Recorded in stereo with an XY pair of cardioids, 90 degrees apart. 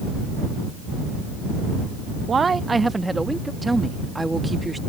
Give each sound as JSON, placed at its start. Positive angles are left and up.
{"t": 2.3, "sound": "a man speaking", "azimuth_deg": -50}
{"t": 3.6, "sound": "a woman speaking", "azimuth_deg": -20}